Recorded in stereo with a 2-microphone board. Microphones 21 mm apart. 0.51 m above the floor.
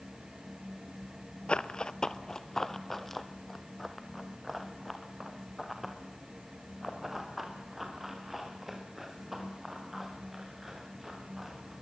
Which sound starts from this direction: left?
Running footsteps, at 1.5 s.